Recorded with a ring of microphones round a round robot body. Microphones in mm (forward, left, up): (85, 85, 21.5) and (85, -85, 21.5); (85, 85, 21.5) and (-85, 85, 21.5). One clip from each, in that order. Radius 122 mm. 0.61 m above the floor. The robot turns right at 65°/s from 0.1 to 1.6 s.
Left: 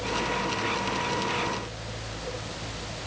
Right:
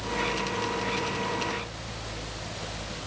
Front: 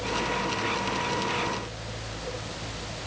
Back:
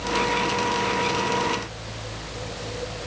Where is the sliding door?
No sliding door in this recording.